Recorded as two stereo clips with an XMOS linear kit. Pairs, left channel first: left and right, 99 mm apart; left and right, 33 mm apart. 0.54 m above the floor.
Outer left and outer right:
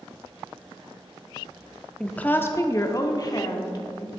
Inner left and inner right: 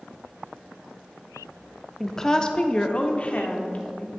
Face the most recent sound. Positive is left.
turn(degrees=45)  # may be behind; listen again after turning